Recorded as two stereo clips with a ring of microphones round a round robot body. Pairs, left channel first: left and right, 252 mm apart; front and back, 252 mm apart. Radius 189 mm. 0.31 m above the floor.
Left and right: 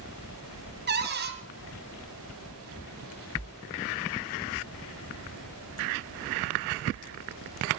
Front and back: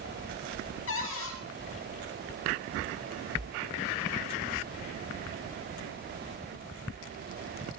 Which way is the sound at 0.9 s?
45° right.